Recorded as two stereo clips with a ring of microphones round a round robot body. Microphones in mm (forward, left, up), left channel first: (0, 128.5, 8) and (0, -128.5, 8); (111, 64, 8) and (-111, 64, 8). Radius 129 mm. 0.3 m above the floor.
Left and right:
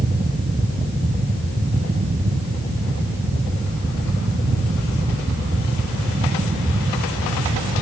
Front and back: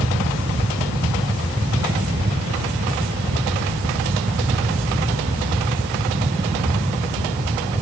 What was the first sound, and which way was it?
Only background noise.